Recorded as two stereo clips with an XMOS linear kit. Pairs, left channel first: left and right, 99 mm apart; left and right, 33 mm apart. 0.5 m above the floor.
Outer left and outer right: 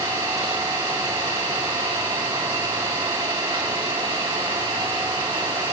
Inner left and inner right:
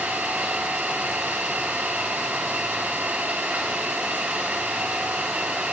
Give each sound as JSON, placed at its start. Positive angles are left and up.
{"t": 0.0, "sound": "an engine running", "side_deg": -65, "distance_m": 2.5}